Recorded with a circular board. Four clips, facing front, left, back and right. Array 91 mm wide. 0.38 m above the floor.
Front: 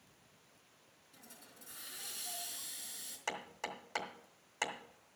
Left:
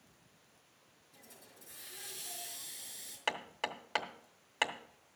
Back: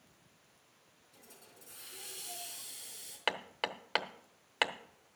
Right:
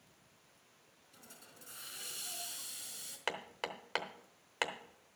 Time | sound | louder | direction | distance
1.1 | a hiss | even, even | 85° right | 4 m
3.3 | hammering | left 3 dB, back 5 dB | 175° right | 0.9 m